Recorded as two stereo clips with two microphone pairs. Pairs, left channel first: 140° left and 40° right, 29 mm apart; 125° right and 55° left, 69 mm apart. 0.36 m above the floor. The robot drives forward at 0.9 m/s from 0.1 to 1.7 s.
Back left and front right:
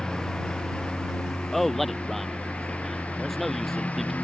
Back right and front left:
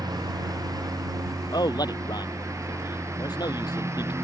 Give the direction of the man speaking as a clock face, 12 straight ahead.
5 o'clock.